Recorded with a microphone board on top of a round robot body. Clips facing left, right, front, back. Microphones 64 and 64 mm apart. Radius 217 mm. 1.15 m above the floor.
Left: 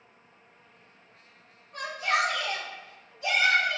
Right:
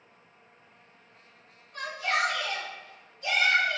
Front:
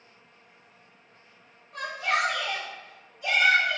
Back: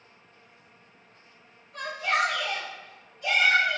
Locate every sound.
1.7 s a shout: 20° left, 0.9 m; by 3.8 s 95° left, 0.8 m